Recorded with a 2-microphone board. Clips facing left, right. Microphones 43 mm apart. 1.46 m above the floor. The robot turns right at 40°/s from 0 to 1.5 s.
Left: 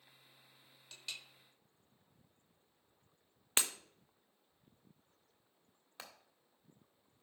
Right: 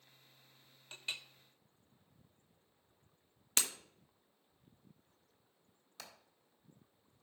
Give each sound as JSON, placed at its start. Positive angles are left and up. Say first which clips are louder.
{"t": 0.9, "sound": "a clink", "louder": "right 5 dB", "side_deg": -35, "distance_m": 0.6}
{"t": 3.6, "sound": "breaking glass", "louder": "left 1 dB", "side_deg": 25, "distance_m": 0.9}
{"t": 6.0, "sound": "hammering", "louder": "left 1 dB", "side_deg": 30, "distance_m": 1.8}